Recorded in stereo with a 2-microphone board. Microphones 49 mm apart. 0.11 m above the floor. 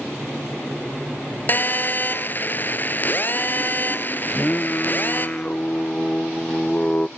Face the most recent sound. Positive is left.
turn(degrees=25)  # may be behind; listen again after turning